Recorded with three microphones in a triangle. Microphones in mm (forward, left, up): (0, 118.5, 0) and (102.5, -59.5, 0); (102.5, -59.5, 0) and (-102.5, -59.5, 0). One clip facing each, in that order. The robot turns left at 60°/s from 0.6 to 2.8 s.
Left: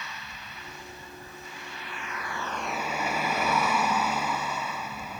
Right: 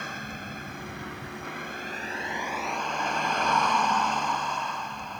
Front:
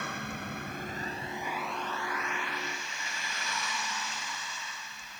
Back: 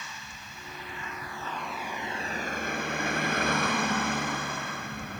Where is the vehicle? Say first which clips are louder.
Right 7 dB, front 10 dB; 25° right; by 5.2 s 155° right.